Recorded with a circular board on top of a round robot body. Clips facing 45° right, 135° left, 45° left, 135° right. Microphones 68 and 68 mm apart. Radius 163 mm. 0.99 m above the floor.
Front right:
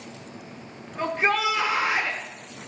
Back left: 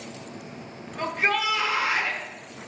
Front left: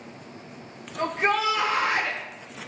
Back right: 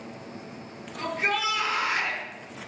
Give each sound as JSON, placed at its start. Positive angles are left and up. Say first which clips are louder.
{"t": 1.0, "sound": "a shout", "louder": "front right 2 dB, front left 4 dB", "azimuth_deg": 15, "distance_m": 1.2}